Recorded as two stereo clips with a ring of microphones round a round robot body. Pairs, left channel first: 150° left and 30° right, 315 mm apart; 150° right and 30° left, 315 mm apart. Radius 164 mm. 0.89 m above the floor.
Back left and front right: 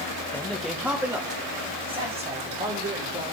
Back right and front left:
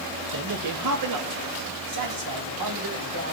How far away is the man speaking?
About 1.4 m.